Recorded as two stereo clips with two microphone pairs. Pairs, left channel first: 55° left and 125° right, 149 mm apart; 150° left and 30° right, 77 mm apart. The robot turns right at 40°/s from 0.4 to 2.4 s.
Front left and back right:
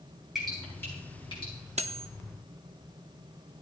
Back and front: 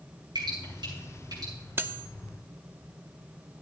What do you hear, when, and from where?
0.3 s dripping: 35° right, 6 m; by 1.5 s 10° left, 6 m
1.8 s cutlery clinking: 85° right, 0.5 m; by 2.1 s 75° right, 0.5 m